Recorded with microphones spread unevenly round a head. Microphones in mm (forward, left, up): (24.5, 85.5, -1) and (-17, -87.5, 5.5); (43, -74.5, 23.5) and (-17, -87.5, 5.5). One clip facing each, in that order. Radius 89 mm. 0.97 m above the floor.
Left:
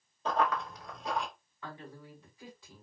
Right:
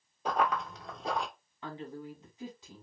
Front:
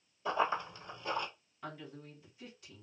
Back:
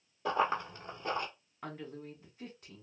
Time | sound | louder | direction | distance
0.2 | running footsteps | even, back 1 dB | 170° right | 1.1 m
1.6 | a woman speaking | right 5 dB, back 3 dB | 170° right | 1.3 m